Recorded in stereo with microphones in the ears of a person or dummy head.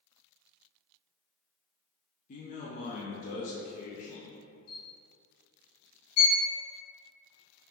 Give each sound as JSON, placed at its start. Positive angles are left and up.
{"t": 2.3, "sound": "a man speaking", "side_deg": 40, "distance_m": 0.5}
{"t": 4.7, "sound": "a camera shutter", "side_deg": 75, "distance_m": 1.9}
{"t": 6.2, "sound": "a violin", "side_deg": 80, "distance_m": 0.7}